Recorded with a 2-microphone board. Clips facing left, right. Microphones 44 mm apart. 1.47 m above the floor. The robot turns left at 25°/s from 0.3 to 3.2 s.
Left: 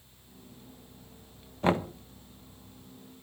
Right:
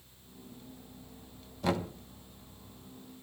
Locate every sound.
1.6 s knocking: 35° left (ahead or behind), 1.0 m; by 1.9 s 30° left (ahead or behind), 1.0 m